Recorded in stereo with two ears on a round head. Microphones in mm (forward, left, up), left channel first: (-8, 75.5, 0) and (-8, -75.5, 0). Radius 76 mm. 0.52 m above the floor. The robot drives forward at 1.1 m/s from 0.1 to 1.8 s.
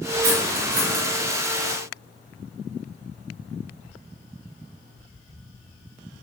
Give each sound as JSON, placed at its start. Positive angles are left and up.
{"t": 0.2, "sound": "cutlery clinking", "side_deg": -65, "distance_m": 2.5}